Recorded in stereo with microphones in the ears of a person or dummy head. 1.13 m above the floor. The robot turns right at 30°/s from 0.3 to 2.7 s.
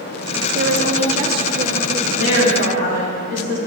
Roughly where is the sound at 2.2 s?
Left.